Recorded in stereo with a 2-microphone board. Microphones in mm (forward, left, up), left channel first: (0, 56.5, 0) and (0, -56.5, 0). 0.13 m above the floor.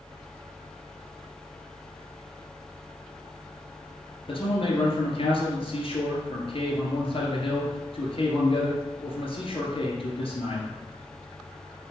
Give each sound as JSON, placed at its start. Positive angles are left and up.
{"t": 4.3, "sound": "a man speaking", "side_deg": 55, "distance_m": 2.0}